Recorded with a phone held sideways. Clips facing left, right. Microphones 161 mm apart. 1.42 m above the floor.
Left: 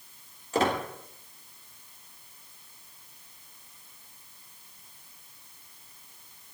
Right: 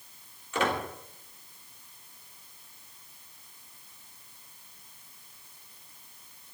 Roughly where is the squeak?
Left.